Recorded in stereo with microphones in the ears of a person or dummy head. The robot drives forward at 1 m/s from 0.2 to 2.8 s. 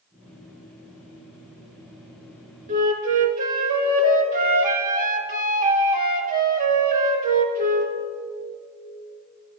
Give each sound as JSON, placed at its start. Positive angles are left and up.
{"t": 2.7, "sound": "a flute", "side_deg": -45, "distance_m": 1.8}